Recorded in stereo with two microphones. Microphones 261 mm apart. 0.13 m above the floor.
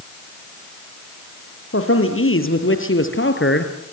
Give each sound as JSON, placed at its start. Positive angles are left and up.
{"t": 1.7, "sound": "a man speaking", "side_deg": 55, "distance_m": 4.5}